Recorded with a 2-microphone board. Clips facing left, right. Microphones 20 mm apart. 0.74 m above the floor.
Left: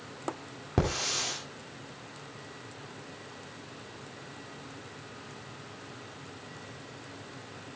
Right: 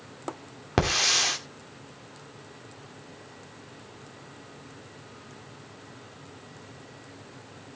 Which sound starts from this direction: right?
A hiss, at 0.8 s.